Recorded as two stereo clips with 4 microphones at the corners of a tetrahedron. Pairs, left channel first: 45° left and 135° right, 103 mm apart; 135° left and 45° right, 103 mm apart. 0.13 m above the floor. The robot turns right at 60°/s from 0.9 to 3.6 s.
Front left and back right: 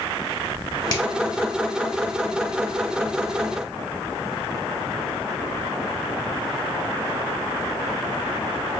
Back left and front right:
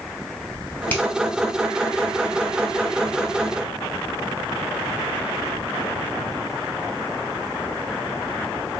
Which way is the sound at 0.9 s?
70° left.